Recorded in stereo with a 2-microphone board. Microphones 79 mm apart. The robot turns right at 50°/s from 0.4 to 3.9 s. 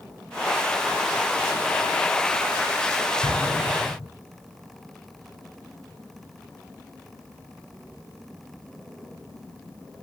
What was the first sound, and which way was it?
An explosion, 60° left (ahead or behind).